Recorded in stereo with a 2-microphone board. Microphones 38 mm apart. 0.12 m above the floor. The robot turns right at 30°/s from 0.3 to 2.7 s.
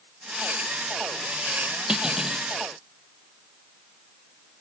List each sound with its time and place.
1.9 s cutlery clinking: 20° right (ahead or behind), 2 m; by 2.4 s 5° right (ahead or behind), 2 m